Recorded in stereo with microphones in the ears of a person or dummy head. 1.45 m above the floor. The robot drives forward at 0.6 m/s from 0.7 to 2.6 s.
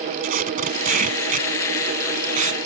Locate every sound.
0.2 s tape being pulled: 45° right (ahead or behind); by 2.6 s 40° right (ahead or behind)